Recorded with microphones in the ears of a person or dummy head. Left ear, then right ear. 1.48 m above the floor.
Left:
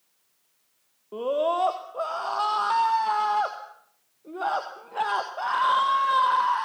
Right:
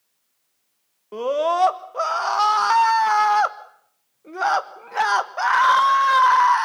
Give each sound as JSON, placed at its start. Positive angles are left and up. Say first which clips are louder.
{"t": 1.1, "sound": "a scream", "louder": "right 4 dB", "side_deg": -65, "distance_m": 1.5}